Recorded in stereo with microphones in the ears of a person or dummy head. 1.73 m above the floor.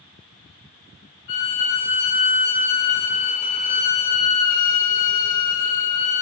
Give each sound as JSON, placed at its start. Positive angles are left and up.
{"t": 1.3, "sound": "a violin", "side_deg": 40, "distance_m": 1.9}